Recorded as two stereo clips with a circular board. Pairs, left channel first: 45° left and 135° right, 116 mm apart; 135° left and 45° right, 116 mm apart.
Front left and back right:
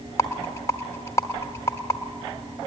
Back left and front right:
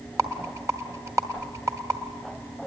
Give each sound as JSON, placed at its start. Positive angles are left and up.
{"t": 0.2, "sound": "a rattle", "azimuth_deg": -5, "distance_m": 1.1}